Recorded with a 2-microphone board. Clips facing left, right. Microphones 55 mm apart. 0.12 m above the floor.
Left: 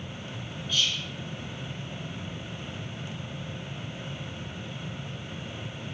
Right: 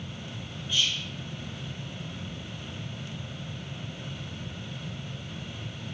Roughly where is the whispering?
Centre.